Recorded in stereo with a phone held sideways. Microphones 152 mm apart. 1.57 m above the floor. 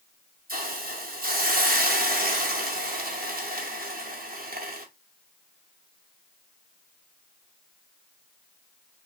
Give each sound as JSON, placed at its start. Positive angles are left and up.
{"t": 0.5, "sound": "a hiss", "side_deg": -70, "distance_m": 0.6}